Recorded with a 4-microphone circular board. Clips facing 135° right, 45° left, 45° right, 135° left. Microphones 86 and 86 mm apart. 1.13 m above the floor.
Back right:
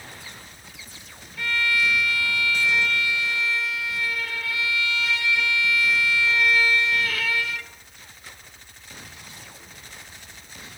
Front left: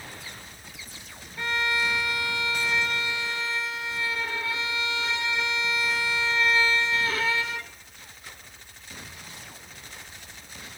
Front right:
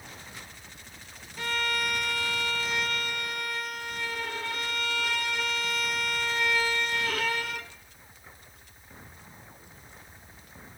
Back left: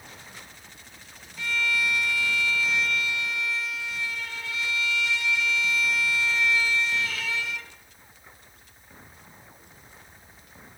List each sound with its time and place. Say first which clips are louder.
1.4 s a violin: back right 2 dB, back left 2 dB; 15° right, 0.8 m